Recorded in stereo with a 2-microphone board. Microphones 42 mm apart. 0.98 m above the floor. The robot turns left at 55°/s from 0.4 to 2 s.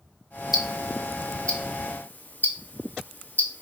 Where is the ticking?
10° right (ahead or behind), 0.5 m; by 3.6 s 50° left (ahead or behind), 0.5 m.